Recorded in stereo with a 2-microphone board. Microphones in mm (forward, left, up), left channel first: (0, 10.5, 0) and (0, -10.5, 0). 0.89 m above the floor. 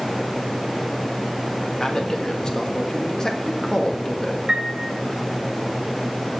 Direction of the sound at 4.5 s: 30° right (ahead or behind).